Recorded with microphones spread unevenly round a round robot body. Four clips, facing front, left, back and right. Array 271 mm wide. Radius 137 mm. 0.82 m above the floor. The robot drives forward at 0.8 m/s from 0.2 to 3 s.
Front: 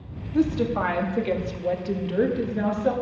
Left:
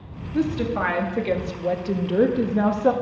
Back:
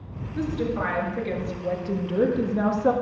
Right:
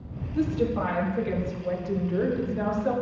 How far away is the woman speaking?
About 2 m.